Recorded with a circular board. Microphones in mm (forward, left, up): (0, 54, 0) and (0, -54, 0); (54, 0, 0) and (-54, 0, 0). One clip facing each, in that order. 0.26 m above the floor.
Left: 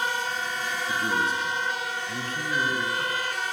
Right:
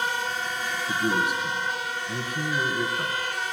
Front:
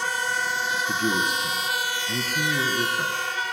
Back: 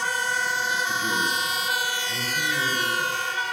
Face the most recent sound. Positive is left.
turn(degrees=-15)